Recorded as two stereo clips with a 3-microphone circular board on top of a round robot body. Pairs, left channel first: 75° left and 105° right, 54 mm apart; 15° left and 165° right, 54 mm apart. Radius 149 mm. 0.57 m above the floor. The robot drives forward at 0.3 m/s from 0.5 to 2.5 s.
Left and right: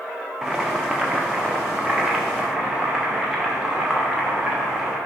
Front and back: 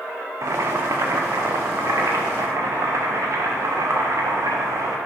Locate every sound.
0.4 s boiling: 175° left, 0.8 m